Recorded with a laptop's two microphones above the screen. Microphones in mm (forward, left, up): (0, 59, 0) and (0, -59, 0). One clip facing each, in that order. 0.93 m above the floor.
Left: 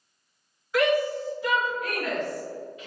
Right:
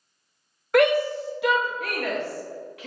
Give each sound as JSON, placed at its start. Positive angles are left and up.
{"t": 0.7, "sound": "a shout", "side_deg": -60, "distance_m": 0.6}